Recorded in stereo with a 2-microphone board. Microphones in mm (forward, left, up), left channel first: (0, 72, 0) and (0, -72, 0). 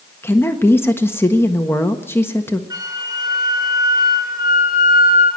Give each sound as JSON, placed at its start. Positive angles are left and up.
{"t": 0.2, "sound": "a woman speaking", "side_deg": 15, "distance_m": 1.4}
{"t": 2.7, "sound": "a flute", "side_deg": -25, "distance_m": 5.5}